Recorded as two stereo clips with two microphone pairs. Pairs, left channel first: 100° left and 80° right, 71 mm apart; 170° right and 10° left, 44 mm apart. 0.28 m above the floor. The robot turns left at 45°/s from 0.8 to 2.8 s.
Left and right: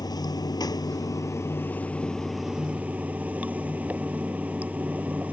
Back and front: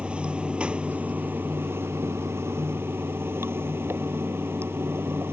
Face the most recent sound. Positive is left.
turn(degrees=-15)